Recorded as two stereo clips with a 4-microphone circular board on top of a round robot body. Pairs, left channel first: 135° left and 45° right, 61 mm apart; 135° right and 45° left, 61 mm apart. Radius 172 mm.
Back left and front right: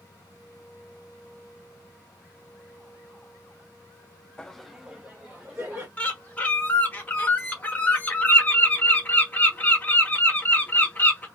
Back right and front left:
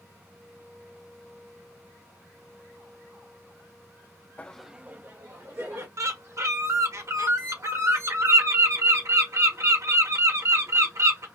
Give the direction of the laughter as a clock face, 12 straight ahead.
5 o'clock.